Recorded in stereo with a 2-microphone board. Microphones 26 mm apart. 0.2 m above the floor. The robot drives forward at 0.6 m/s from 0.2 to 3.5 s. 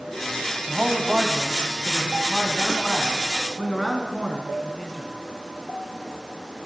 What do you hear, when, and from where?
0.7 s a man speaking: 20° right (ahead or behind), 1.1 m; by 5.1 s 15° right (ahead or behind), 1.7 m